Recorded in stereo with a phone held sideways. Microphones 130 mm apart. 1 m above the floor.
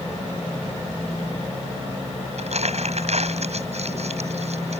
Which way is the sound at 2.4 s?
65° right (ahead or behind).